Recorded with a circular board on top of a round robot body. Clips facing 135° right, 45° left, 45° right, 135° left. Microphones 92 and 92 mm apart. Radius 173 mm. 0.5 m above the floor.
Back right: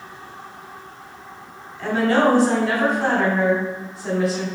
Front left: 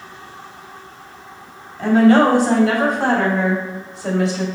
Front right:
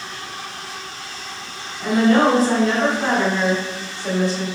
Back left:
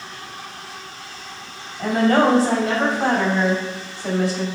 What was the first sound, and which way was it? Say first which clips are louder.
A woman speaking: front left 6 dB, front right 1 dB; 90° left.